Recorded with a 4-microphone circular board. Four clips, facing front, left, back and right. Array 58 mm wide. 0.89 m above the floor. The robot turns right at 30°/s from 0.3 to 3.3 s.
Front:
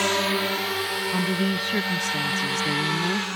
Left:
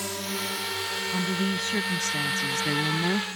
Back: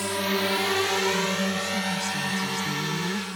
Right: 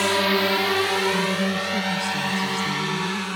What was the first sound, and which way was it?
A drone, 55° right.